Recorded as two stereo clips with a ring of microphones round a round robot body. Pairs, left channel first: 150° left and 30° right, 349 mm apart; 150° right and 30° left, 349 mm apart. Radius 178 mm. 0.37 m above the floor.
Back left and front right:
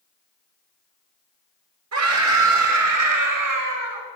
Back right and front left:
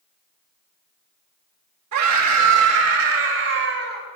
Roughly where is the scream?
Ahead.